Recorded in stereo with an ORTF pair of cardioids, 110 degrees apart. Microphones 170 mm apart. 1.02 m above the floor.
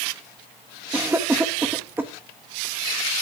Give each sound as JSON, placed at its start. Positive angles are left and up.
{"t": 0.9, "sound": "a cough", "azimuth_deg": -15, "distance_m": 1.2}